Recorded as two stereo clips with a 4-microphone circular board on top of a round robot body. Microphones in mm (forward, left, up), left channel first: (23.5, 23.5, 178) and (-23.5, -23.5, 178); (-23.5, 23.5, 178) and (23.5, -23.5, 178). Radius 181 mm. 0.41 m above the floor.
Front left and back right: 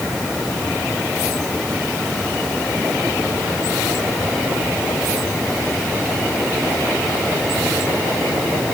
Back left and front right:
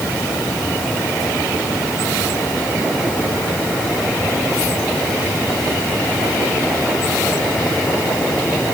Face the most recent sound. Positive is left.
No sound to turn to.